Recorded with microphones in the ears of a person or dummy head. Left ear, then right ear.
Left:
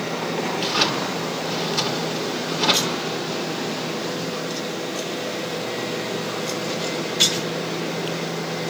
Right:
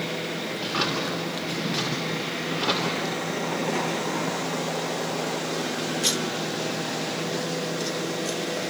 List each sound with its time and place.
0.6 s a drawer: 10° left (ahead or behind), 2.5 m